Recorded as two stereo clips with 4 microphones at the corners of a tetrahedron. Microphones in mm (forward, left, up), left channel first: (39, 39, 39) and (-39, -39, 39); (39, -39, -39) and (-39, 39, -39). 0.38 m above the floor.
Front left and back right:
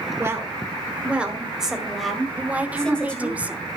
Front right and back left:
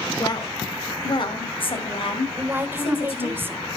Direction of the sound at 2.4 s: 165° left.